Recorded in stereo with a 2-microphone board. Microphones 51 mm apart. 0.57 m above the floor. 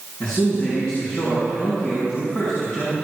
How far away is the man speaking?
About 5.5 m.